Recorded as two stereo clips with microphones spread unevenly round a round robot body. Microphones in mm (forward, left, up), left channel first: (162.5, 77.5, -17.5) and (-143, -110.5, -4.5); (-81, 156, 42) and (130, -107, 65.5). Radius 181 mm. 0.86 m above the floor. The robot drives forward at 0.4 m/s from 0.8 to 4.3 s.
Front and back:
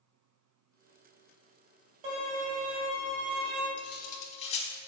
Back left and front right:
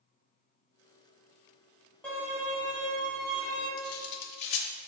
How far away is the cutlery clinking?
About 0.9 m.